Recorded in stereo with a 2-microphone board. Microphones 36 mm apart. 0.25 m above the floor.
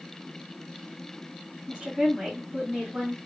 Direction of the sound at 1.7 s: 25° right (ahead or behind).